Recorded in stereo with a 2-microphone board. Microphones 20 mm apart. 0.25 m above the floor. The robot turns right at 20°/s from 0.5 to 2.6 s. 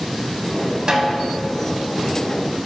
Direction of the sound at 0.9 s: 35° right (ahead or behind).